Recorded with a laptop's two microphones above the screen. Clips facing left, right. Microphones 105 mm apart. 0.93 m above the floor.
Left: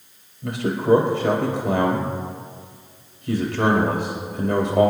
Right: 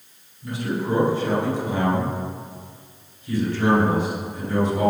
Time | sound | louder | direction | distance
0.4 | a man speaking | left 4 dB | 80° left | 4.5 m